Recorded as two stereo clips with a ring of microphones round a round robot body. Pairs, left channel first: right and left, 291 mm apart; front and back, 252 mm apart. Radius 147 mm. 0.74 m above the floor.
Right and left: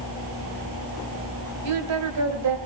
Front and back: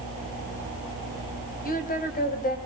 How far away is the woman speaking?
About 4 m.